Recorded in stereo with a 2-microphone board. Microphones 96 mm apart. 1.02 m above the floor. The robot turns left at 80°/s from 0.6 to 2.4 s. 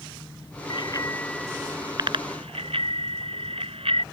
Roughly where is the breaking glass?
I don't hear breaking glass.